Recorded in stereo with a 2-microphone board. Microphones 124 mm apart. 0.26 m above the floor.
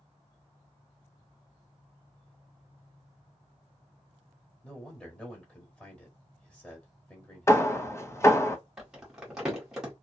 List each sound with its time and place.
4.6 s a man speaking: 5° left (ahead or behind), 1.0 m
7.5 s hammering: 20° left (ahead or behind), 0.5 m
8.8 s crumpling: 5° right (ahead or behind), 1.4 m